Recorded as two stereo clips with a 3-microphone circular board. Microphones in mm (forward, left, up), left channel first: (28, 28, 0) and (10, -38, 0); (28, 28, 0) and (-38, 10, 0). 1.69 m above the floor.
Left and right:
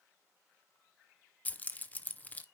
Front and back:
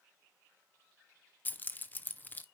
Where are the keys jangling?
35° left, 0.6 m.